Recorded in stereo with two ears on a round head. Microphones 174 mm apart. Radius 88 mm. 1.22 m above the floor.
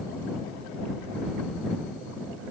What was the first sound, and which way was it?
Only background noise.